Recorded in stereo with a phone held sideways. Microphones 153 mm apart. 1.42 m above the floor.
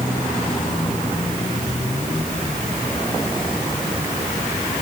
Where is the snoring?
I don't hear snoring.